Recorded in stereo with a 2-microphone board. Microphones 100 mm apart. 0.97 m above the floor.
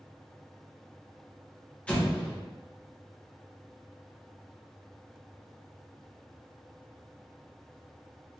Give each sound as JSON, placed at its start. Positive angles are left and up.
{"t": 1.9, "sound": "an explosion", "side_deg": 10, "distance_m": 1.1}